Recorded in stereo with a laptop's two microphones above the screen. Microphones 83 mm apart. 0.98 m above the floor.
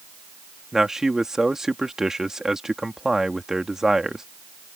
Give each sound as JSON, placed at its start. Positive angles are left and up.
{"t": 0.7, "sound": "a man speaking", "side_deg": -5}